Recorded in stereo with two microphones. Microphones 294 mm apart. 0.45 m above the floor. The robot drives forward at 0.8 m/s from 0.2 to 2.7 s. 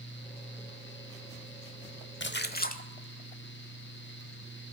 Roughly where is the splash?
Left.